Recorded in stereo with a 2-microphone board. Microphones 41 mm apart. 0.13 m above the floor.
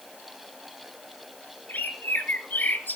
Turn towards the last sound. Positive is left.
turn(degrees=45)  # may be behind; listen again after turning